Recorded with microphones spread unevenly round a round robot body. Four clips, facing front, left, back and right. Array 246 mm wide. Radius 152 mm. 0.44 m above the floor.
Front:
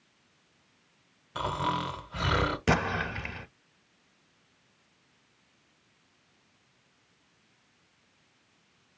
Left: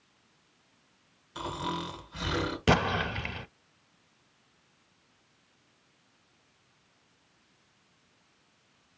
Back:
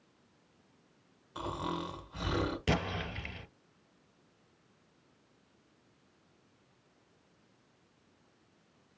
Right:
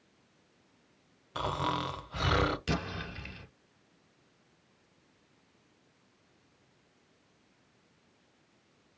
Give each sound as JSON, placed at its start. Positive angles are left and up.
{"t": 1.4, "sound": "snoring", "azimuth_deg": -20, "distance_m": 1.3}
{"t": 2.7, "sound": "an explosion", "azimuth_deg": 55, "distance_m": 0.5}